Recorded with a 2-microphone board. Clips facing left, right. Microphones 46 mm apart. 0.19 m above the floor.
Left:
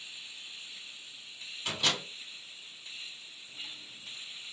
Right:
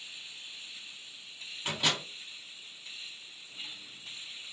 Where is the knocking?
I don't hear knocking.